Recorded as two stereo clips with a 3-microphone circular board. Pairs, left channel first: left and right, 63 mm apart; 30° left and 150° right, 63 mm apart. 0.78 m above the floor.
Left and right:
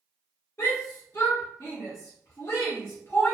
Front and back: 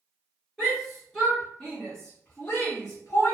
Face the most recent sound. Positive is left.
turn(degrees=35)